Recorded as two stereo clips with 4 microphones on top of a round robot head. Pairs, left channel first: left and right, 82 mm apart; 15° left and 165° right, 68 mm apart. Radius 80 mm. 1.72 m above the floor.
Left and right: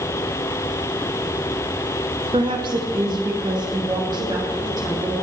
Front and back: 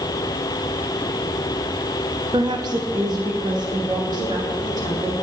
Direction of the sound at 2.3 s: 125° right.